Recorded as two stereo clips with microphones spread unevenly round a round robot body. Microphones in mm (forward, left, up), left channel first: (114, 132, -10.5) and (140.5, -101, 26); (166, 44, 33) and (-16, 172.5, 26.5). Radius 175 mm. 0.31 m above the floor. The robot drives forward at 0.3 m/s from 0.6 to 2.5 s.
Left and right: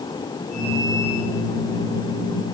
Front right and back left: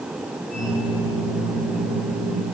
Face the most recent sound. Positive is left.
No sound to turn to.